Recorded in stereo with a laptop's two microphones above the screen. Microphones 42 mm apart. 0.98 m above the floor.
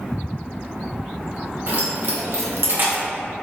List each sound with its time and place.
1.7 s keys jangling: 60° right (ahead or behind), 1.0 m; by 3.0 s 30° right (ahead or behind), 0.6 m